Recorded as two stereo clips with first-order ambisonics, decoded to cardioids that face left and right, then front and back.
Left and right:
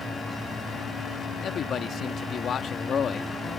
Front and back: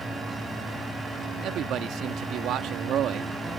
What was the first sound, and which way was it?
A man speaking, 145° left.